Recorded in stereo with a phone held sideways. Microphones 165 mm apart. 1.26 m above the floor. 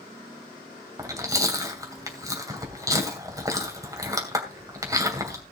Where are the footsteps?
I don't hear footsteps.